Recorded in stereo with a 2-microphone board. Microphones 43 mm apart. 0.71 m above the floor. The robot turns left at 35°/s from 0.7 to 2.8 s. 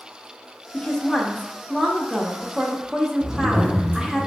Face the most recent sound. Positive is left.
turn(degrees=-20)  # may be behind; listen again after turning